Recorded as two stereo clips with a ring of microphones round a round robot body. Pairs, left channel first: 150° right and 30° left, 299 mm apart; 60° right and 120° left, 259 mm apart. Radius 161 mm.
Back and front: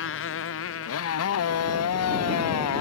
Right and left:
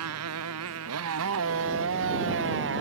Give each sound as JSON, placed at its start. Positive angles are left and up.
{"t": 0.0, "sound": "a motorcycle", "azimuth_deg": 160}